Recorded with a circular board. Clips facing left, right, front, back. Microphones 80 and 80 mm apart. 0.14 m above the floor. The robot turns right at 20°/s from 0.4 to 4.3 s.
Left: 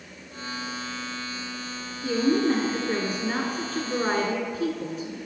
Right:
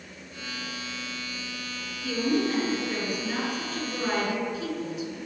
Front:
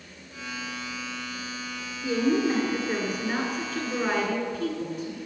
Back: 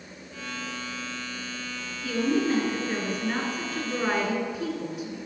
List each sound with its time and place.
2.0 s a woman speaking: 60° left, 1.4 m; by 5.2 s 105° left, 1.4 m